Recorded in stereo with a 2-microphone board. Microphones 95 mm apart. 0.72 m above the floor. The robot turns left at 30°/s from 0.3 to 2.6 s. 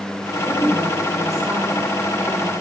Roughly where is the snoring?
I don't hear snoring.